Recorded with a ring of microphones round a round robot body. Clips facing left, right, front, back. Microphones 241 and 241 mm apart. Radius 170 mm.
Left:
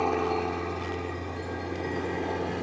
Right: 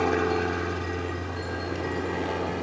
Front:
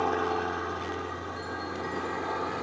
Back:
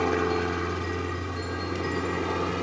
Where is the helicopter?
150° right; by 2.6 s straight behind.